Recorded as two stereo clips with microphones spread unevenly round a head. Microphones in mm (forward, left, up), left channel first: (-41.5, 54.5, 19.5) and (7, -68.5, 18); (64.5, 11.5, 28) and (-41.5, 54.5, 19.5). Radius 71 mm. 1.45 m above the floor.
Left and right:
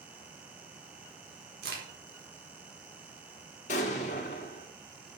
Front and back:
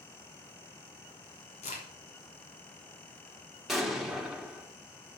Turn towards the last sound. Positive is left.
turn(degrees=70)